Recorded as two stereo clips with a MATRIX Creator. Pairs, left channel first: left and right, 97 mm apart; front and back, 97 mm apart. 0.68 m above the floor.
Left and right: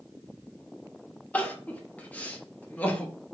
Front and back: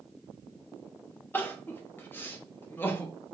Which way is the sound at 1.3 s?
40° left.